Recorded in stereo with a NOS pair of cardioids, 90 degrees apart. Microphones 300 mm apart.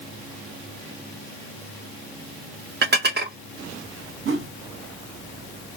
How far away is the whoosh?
About 1.9 m.